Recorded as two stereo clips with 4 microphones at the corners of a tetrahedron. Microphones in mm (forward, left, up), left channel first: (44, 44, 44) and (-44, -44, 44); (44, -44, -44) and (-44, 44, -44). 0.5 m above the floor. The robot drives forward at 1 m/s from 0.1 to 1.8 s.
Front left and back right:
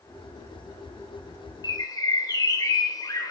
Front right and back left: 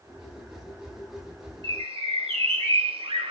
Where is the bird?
95° left, 1.2 m; by 3.3 s 100° left, 1.2 m.